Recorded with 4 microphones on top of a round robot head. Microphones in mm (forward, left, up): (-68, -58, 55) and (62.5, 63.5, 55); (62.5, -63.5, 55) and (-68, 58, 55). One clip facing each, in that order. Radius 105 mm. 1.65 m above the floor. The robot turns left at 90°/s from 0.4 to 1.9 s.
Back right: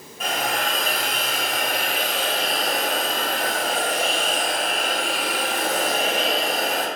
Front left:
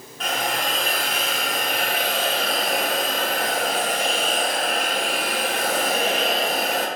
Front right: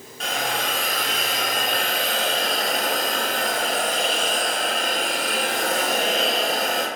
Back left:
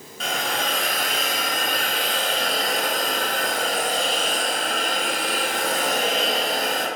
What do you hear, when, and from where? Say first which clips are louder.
0.2 s a hiss: even, even; 145° left, 0.9 m; by 6.9 s 10° left, 0.9 m